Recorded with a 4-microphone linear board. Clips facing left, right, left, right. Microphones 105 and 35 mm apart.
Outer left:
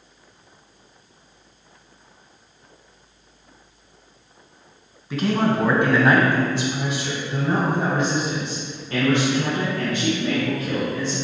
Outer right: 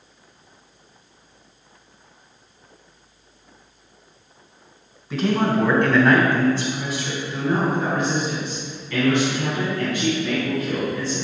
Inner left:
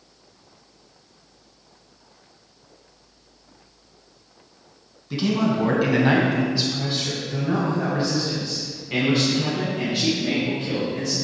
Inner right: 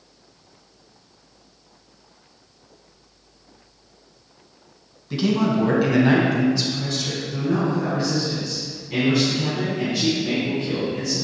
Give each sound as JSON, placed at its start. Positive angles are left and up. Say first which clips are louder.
{"t": 5.1, "sound": "a man speaking", "louder": "even, inner right 1 dB", "side_deg": -5, "distance_m": 2.0}